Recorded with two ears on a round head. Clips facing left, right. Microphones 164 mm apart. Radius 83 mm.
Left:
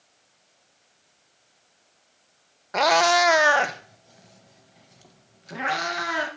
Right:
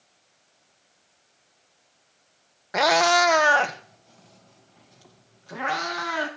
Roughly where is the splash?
I don't hear a splash.